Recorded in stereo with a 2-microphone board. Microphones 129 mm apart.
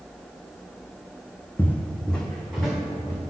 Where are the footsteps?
15° left (ahead or behind), 0.6 m; by 3.2 s centre (ahead or behind), 1.3 m.